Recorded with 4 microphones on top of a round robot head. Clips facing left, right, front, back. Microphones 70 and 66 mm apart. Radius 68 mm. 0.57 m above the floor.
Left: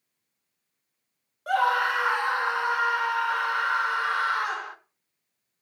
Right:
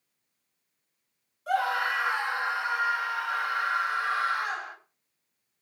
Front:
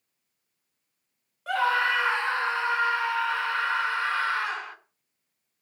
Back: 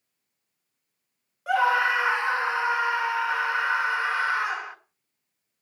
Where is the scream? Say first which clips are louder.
Left 4 dB, back 3 dB; 105° left, 2 m.